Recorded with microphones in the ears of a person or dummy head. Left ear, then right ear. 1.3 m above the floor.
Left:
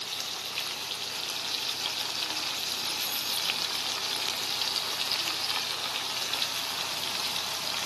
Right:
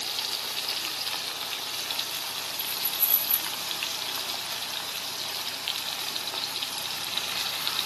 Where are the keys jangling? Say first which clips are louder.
Even; 20° right (ahead or behind), 2 m.